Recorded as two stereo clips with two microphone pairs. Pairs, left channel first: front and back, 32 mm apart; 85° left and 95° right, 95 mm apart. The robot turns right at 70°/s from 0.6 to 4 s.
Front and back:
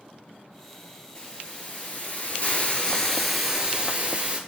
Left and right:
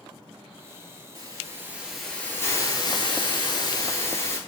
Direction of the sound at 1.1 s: 60° right.